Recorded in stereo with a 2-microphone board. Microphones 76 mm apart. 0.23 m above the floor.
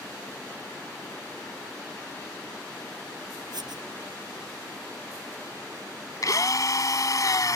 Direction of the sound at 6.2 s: 50° left (ahead or behind).